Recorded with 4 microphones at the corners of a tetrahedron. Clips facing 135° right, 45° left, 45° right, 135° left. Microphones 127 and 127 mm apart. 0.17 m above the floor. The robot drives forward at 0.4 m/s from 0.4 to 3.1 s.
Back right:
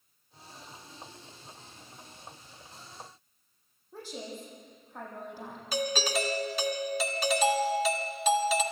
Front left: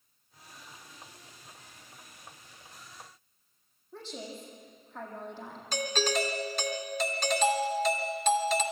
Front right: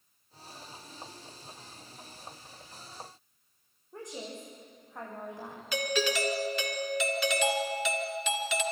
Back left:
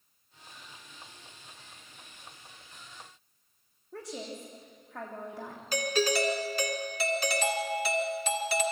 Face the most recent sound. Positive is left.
turn(degrees=145)